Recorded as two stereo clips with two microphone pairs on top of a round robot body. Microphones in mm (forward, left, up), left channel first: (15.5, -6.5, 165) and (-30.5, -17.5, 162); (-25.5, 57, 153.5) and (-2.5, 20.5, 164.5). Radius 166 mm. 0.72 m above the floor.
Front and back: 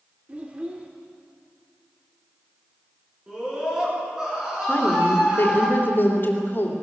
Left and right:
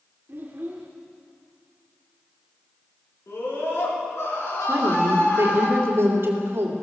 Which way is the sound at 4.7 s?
30° right.